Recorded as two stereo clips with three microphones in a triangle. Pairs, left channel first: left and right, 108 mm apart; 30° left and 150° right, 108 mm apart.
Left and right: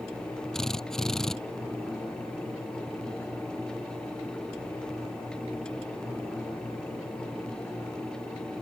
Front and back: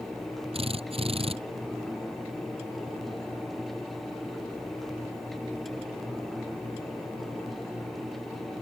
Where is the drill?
175° left.